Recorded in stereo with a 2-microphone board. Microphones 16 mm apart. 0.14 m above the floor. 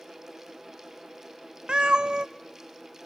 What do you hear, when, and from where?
1.7 s a cat meowing: 75° right (ahead or behind), 0.8 m